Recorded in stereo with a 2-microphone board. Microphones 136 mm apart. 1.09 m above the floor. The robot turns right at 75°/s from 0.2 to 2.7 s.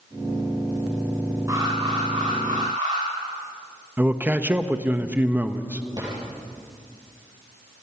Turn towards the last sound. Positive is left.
turn(degrees=-30)  # may be behind; listen again after turning